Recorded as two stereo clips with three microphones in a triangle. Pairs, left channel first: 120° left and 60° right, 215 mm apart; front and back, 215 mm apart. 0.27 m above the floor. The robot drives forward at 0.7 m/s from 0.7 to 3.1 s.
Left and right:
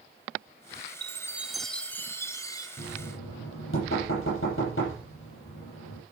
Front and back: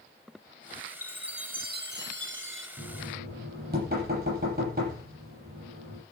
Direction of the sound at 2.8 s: 140° left.